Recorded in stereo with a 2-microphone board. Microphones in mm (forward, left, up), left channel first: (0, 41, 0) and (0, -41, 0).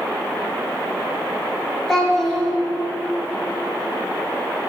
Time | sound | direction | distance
1.9 | a child speaking | 5° left (ahead or behind) | 1.7 m